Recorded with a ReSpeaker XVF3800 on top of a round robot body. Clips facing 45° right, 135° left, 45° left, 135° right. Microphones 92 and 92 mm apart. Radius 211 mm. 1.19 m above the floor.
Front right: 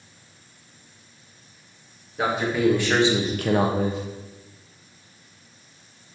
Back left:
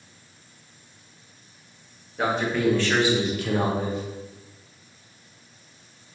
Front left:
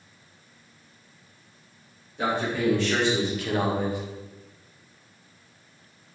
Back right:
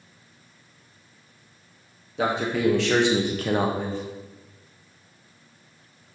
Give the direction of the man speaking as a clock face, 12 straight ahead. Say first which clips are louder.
Front right 1 dB, back right 2 dB; 4 o'clock.